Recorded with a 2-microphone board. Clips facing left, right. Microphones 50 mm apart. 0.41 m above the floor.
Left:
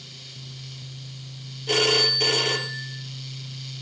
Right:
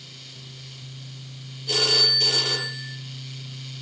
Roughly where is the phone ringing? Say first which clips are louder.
Left 3 dB; left.